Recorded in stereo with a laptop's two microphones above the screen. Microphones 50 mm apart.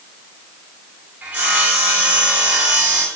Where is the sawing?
30° right (ahead or behind), 1.2 m.